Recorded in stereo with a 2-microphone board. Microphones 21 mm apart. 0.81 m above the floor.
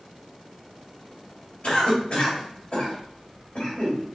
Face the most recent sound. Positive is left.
turn(degrees=55)  # may be behind; listen again after turning